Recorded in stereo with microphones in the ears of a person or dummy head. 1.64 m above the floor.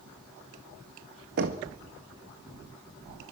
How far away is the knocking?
About 1.6 m.